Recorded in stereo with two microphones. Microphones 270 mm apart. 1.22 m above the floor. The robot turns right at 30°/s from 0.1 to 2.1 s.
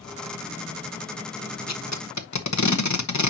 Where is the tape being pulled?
65° left (ahead or behind), 1.2 m; by 3.3 s 75° left (ahead or behind), 1.2 m.